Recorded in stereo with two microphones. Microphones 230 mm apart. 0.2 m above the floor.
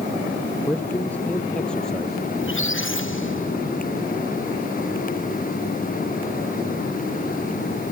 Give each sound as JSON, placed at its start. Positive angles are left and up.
{"t": 0.7, "sound": "a man speaking", "side_deg": 10}
{"t": 2.4, "sound": "a squeak", "side_deg": 60}